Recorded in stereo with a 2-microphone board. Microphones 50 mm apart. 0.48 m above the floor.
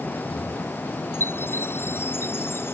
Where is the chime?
50° left (ahead or behind).